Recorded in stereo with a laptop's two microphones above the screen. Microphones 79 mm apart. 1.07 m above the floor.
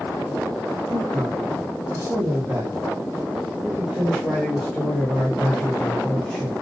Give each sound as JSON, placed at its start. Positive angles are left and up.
{"t": 0.9, "sound": "a man speaking", "side_deg": -65, "distance_m": 2.0}